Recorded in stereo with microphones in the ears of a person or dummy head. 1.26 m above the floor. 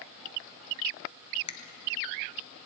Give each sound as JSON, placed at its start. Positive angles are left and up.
{"t": 1.5, "sound": "a finger snap", "side_deg": 20, "distance_m": 0.7}